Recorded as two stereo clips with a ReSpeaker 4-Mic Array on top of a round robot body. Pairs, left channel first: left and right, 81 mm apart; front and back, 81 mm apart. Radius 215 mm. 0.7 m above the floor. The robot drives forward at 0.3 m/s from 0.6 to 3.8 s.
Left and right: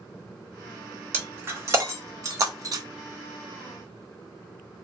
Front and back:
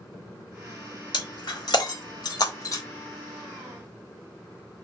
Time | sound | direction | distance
1.1 | breaking glass | 25° right | 1.1 m